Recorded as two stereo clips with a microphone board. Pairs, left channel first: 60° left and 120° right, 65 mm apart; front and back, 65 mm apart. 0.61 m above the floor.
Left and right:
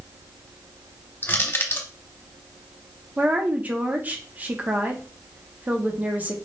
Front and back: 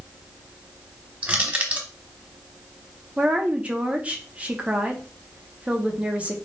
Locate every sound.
1.2 s crushing: 110° left, 0.8 m
3.2 s a woman speaking: 140° right, 0.7 m